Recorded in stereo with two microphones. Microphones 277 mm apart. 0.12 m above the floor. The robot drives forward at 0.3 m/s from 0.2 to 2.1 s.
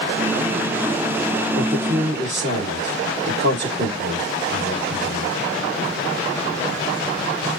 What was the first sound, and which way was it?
A woman speaking, 40° right (ahead or behind).